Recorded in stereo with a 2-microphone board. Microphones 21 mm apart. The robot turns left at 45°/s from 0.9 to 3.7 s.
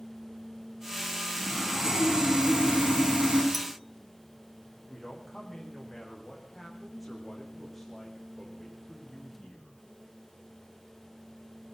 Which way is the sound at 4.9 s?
5° left (ahead or behind).